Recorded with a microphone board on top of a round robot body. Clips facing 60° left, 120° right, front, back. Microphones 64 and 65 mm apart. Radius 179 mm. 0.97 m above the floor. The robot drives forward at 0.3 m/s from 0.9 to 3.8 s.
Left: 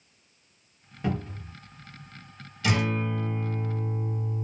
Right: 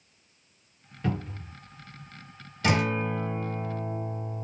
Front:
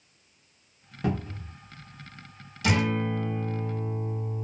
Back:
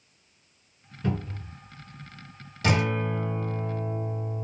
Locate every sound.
1.0 s a cupboard door: 15° right, 1.0 m; by 1.5 s 20° right, 0.8 m
2.6 s a guitar: 155° right, 1.4 m; by 4.5 s 160° right, 1.6 m